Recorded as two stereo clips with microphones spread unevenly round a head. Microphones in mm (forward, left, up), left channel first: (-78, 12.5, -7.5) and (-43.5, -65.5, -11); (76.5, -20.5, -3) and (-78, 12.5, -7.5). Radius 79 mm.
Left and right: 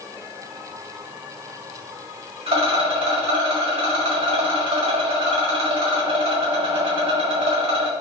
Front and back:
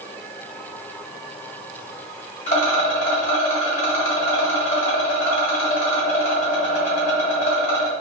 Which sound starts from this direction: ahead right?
A rattle, at 2.5 s.